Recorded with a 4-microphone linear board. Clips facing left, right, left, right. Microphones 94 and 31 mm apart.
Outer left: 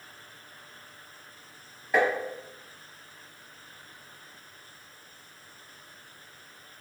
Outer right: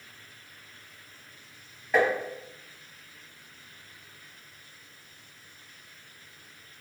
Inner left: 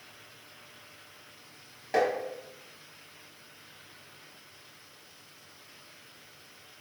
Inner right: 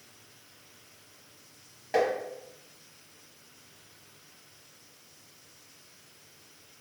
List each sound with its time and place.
1.9 s tapping: centre (ahead or behind), 0.8 m